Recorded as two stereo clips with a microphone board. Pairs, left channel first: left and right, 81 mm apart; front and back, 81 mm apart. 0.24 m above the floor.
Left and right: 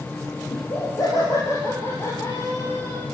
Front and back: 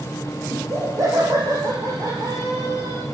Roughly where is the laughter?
Behind left.